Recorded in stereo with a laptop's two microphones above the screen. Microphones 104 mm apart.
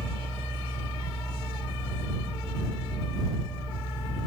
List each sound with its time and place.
0.0 s a fan: 20° left (ahead or behind)